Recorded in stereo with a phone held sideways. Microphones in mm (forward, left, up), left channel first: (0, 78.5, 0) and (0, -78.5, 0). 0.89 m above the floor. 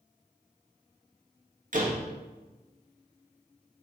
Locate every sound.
1.7 s a door slam: 55° right (ahead or behind), 0.8 m